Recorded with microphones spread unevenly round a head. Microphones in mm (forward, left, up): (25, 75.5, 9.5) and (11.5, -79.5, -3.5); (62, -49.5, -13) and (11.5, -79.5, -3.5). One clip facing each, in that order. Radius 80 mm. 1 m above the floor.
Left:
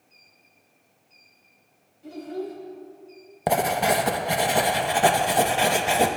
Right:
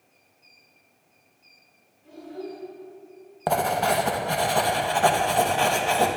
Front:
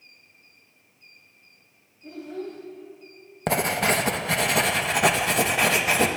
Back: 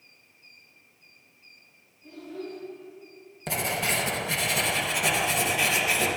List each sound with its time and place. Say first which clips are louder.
2.0 s a child speaking: left 4 dB, front 3 dB; 90° left, 4 m
3.5 s writing: left 1 dB, front 6 dB; 15° left, 1.0 m